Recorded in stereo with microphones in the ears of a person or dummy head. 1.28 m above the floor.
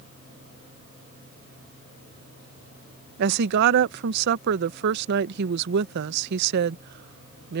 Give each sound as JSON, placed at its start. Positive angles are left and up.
{"t": 3.2, "sound": "a woman speaking", "side_deg": -65}